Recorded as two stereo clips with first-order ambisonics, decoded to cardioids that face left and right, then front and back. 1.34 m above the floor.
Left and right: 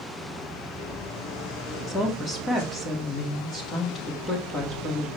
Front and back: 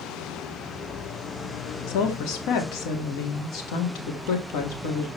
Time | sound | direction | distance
1.9 | a woman speaking | 20° left | 2.5 m